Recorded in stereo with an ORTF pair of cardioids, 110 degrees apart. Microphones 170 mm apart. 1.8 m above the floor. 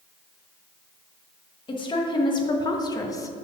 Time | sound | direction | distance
1.7 | a woman speaking | 30° left | 1.5 m